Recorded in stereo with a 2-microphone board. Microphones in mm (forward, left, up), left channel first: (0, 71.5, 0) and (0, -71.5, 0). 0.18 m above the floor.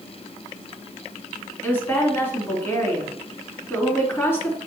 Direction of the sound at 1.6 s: 15° left (ahead or behind).